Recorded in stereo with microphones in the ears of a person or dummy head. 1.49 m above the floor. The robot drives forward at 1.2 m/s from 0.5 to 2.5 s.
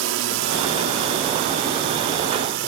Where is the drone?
65° right (ahead or behind); by 2.7 s 60° right (ahead or behind).